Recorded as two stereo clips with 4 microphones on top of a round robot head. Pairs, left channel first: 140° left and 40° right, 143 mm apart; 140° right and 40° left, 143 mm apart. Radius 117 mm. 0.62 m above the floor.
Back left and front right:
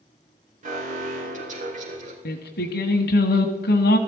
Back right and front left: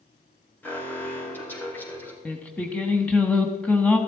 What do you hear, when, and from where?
0.6 s an alarm: 65° right, 4.5 m
2.2 s singing: 140° left, 1.2 m